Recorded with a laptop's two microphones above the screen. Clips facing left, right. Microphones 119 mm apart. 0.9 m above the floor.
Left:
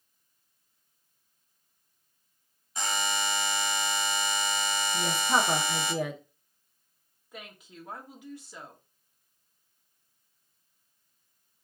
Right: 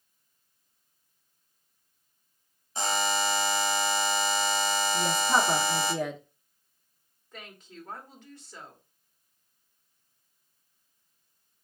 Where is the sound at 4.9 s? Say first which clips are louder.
Even; 5° left (ahead or behind), 1.0 m.